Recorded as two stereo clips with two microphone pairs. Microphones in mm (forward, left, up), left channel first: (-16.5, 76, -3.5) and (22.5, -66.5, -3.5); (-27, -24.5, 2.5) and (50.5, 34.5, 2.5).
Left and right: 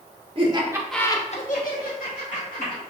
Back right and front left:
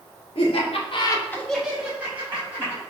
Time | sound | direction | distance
0.3 | laughter | 125° right | 1.1 m